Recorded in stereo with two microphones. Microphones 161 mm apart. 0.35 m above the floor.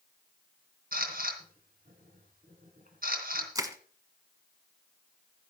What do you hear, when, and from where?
0.9 s a camera shutter: 65° right (ahead or behind), 3.5 m
3.5 s crushing: 20° right (ahead or behind), 1.2 m